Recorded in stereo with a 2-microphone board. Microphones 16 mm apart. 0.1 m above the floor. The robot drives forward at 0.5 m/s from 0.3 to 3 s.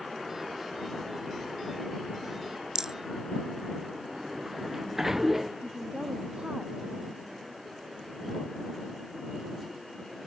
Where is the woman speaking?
60° right (ahead or behind).